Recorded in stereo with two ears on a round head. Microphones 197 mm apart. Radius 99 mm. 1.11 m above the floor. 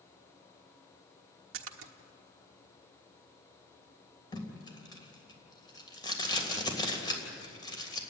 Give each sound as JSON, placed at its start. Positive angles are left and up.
{"t": 1.5, "sound": "a splash", "side_deg": -70, "distance_m": 1.2}
{"t": 4.3, "sound": "tape being pulled", "side_deg": 20, "distance_m": 3.0}